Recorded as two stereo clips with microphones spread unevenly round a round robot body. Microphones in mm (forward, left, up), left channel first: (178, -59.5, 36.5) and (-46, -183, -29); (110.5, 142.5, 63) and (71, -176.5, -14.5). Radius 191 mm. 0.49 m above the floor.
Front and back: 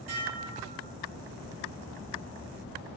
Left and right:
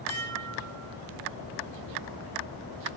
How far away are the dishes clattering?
About 5.5 m.